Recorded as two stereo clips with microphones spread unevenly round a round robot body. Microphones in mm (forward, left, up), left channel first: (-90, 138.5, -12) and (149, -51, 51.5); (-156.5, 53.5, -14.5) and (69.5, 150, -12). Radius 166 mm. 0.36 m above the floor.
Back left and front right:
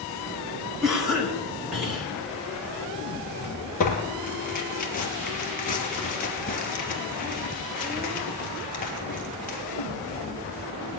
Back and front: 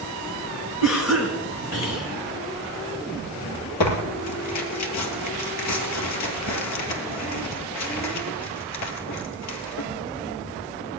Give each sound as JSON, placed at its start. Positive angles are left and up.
{"t": 0.8, "sound": "a cough", "azimuth_deg": -130, "distance_m": 3.0}
{"t": 3.8, "sound": "tearing paper", "azimuth_deg": -155, "distance_m": 2.5}